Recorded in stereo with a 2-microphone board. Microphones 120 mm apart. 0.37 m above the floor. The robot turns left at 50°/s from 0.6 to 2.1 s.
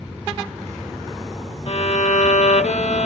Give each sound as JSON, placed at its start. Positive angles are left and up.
{"t": 1.7, "sound": "a violin", "side_deg": 55, "distance_m": 0.6}